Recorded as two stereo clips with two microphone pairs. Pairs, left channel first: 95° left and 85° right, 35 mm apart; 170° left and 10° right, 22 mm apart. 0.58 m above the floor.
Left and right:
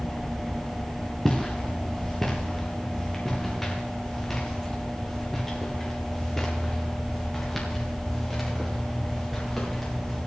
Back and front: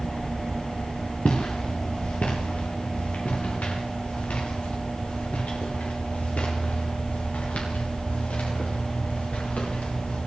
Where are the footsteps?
175° left, 3.5 m; by 10.2 s straight behind, 8 m.